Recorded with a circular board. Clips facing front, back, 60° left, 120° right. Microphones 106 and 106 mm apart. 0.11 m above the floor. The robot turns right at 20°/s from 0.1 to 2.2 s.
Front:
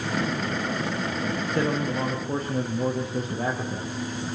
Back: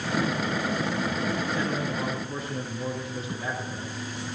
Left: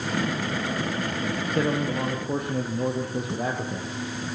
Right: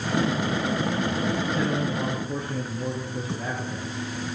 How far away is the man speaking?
About 5 m.